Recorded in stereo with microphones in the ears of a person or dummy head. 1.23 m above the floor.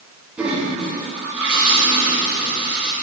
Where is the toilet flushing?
5° right (ahead or behind), 2.5 m.